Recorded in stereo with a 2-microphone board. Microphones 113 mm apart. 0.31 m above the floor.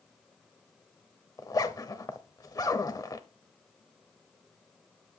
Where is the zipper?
35° left (ahead or behind), 0.8 m.